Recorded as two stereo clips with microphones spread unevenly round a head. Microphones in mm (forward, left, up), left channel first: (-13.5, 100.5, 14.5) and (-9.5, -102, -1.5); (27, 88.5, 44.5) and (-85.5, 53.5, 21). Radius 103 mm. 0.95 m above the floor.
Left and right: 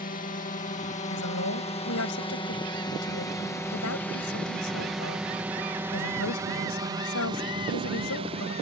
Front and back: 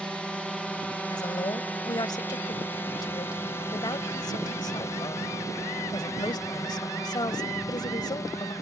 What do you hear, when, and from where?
0.0 s a drone: 110° left; by 8.6 s 50° right
1.1 s a woman speaking: 70° left